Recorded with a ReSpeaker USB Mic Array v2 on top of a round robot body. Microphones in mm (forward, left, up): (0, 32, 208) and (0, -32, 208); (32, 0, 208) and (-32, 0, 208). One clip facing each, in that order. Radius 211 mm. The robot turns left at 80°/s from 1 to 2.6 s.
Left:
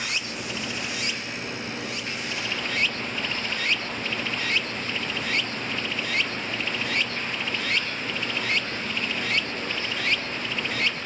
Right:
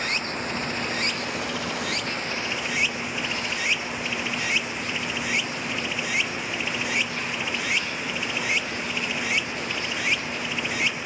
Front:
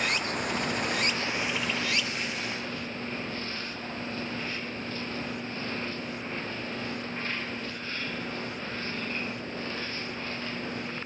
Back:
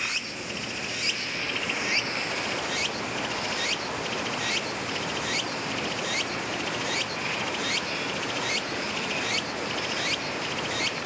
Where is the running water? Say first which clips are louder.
Right 3 dB, front 4 dB; 40° right; by 11.1 s 170° right.